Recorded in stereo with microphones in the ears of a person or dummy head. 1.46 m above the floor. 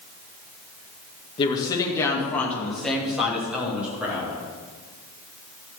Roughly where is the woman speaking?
Left.